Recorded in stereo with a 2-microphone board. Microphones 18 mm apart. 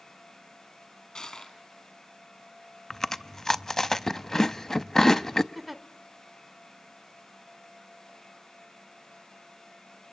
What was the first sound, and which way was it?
Crushing, 40° left (ahead or behind).